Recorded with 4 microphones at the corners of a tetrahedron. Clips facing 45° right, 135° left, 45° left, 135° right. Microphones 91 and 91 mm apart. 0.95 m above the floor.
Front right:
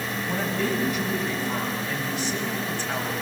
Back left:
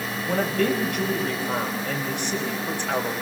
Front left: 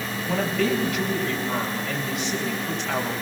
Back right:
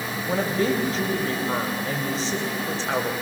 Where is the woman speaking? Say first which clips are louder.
Back left 5 dB, even; 170° left, 5 m.